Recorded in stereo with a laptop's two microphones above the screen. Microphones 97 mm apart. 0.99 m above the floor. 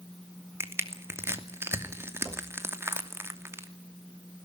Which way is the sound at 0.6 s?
25° right (ahead or behind).